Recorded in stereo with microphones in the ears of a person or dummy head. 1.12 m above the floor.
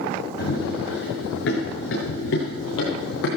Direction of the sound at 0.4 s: 70° left (ahead or behind).